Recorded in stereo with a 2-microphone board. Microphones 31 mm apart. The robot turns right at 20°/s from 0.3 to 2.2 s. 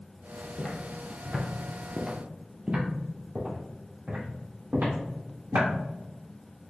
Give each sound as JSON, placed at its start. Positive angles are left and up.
{"t": 0.6, "sound": "footsteps", "side_deg": 30, "distance_m": 1.0}